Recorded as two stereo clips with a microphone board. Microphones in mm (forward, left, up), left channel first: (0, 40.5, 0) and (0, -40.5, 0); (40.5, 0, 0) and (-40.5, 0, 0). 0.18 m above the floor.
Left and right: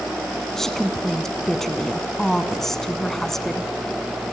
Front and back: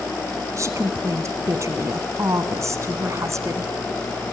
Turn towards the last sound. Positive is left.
turn(degrees=175)